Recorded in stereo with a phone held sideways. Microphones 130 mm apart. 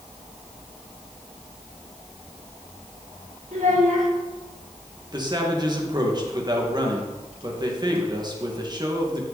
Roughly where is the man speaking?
Right.